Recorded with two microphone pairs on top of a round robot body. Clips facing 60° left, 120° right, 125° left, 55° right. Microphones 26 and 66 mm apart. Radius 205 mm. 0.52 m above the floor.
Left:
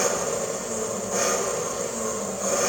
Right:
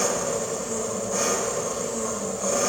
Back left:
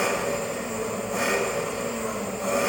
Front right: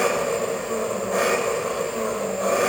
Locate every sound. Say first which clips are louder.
0.0 s an engine running: even, front right 4 dB; 30° right, 1.9 m